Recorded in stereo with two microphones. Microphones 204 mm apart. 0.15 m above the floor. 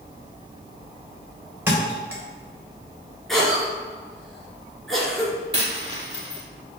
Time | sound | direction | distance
1.7 | a thud | 10° right (ahead or behind) | 2 m
3.3 | a cough | centre (ahead or behind) | 2.5 m
5.5 | a dropped coin | 25° right (ahead or behind) | 1.8 m